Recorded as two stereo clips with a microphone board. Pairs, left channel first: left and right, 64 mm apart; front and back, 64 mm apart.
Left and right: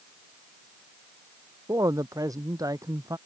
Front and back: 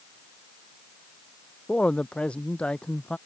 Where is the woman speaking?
70° right.